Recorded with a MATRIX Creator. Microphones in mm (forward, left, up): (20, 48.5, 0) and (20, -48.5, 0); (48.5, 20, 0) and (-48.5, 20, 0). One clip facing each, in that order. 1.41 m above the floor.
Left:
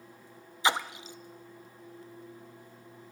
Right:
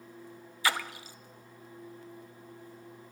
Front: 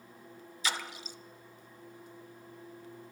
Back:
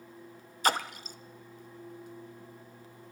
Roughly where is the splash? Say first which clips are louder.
Left 3 dB, back 8 dB; behind left.